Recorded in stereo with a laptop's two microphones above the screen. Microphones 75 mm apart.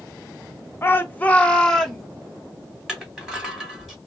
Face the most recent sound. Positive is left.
turn(degrees=-5)  # may be behind; listen again after turning